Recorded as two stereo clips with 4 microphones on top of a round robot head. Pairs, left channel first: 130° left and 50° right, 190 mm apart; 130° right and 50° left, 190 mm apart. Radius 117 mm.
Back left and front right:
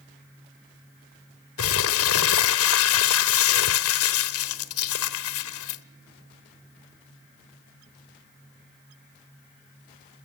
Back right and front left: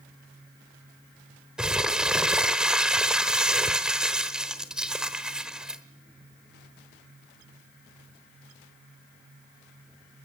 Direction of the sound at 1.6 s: 135° left.